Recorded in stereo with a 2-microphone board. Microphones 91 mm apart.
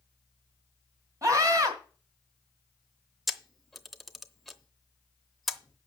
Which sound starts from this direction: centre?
A camera shutter, at 3.3 s.